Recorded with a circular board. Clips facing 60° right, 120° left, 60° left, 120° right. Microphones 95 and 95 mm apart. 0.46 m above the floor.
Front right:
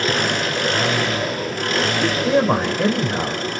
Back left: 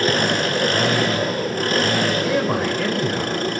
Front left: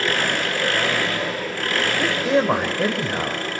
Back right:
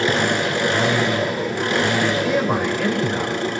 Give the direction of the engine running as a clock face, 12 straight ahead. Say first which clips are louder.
Back left 1 dB, back right 4 dB; 6 o'clock.